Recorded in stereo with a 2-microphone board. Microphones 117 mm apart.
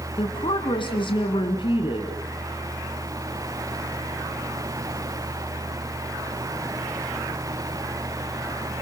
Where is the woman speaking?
45° left (ahead or behind), 1.7 m.